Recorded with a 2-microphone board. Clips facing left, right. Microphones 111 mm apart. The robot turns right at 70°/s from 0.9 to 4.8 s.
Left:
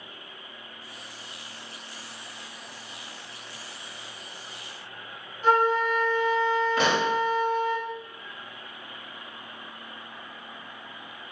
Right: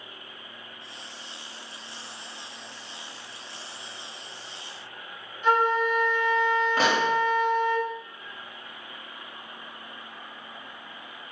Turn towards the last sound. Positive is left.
turn(degrees=-35)  # may be behind; listen again after turning